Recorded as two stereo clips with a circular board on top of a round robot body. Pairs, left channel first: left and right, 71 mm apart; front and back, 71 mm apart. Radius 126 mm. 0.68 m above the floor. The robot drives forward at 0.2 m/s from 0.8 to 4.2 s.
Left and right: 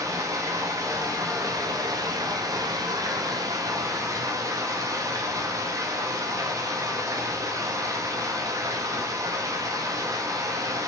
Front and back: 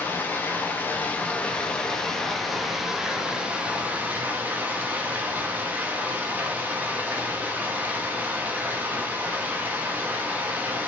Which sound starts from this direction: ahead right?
Running water, at 0.0 s.